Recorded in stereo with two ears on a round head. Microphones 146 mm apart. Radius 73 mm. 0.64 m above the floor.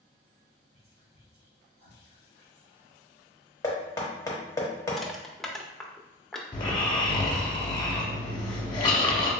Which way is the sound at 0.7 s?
60° right (ahead or behind).